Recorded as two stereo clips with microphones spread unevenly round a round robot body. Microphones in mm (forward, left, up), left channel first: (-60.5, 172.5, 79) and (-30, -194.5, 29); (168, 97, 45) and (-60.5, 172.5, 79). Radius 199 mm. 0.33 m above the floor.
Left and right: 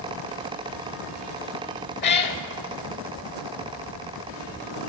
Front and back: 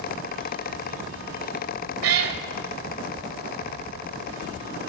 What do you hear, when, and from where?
2.0 s a cat meowing: 155° left, 0.5 m